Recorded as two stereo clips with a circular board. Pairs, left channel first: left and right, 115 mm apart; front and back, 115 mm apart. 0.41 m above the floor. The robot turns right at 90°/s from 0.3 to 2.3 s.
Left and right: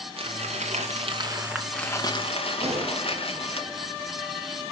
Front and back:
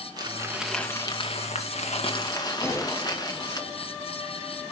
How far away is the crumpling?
About 1.9 m.